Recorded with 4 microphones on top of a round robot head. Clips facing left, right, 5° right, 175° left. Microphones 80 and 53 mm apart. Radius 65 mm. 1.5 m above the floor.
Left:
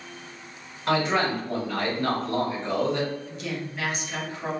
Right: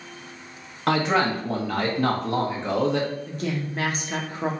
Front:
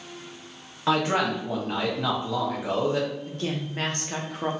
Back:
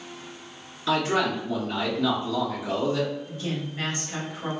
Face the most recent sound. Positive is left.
turn(degrees=-40)